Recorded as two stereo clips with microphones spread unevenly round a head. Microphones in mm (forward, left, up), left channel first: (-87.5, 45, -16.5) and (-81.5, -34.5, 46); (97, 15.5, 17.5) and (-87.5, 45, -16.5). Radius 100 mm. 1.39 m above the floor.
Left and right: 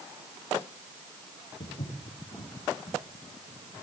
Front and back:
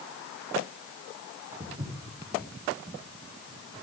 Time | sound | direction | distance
1.6 | footsteps | 110° left | 9 m